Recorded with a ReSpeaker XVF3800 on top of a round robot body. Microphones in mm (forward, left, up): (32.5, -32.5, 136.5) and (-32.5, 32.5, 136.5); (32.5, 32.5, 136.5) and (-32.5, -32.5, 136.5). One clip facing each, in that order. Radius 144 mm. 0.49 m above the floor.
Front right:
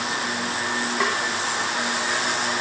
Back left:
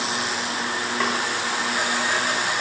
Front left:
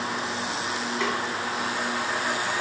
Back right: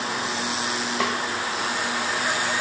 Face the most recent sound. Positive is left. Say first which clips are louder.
# even, back right 2 dB
turn(degrees=-130)